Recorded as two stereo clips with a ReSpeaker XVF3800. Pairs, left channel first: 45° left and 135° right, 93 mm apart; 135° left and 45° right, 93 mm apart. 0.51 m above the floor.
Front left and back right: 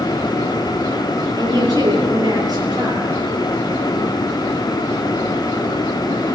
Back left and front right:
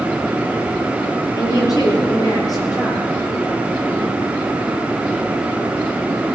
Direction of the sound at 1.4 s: Straight behind.